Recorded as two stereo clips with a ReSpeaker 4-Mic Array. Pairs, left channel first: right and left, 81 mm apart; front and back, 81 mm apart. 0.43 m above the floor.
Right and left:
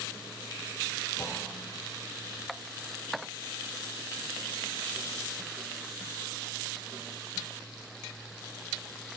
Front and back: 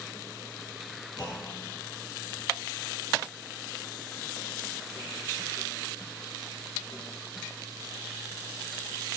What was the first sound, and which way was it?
A clunk, 30° right.